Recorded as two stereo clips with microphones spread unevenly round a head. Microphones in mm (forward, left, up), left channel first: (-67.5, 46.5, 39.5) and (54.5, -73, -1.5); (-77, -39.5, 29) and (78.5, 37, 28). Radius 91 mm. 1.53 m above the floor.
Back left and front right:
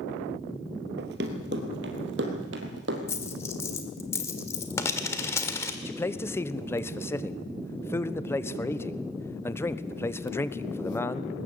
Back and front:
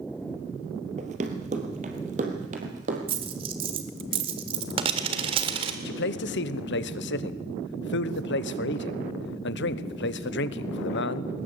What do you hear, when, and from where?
1.0 s running footsteps: 15° right, 2.5 m; by 3.0 s 20° right, 4 m
3.1 s a dropped coin: 80° left, 1.6 m
5.8 s a man speaking: 145° right, 1.1 m